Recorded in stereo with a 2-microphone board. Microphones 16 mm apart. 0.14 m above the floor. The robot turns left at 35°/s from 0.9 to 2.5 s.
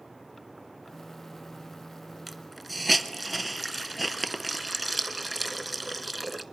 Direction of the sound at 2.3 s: 10° right (ahead or behind).